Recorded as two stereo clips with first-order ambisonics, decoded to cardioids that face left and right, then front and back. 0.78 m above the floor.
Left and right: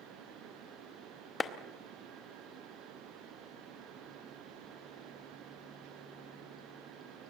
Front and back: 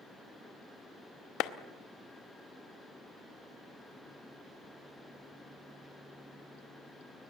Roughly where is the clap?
Ahead.